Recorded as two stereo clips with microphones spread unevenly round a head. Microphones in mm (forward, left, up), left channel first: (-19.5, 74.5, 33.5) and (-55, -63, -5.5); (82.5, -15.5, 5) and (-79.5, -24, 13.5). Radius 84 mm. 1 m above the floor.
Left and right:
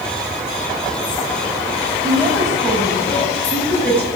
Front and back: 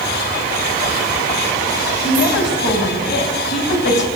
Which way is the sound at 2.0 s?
5° right.